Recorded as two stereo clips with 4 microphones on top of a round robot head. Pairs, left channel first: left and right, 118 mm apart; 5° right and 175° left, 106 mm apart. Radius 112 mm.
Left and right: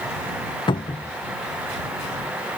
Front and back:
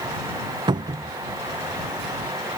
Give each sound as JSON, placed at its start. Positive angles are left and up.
{"t": 0.7, "sound": "a cupboard door", "azimuth_deg": 135}